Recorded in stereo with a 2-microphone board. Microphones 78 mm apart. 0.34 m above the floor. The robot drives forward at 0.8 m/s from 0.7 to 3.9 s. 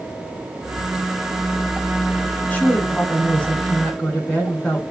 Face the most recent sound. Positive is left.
turn(degrees=15)  # may be behind; listen again after turning